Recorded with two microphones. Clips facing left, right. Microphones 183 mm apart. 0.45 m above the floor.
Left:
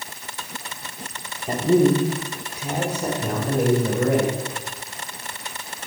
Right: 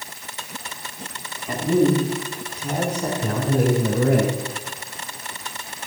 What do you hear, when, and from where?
1.5 s a man speaking: 35° left (ahead or behind), 2.5 m; by 4.3 s 10° right (ahead or behind), 4.5 m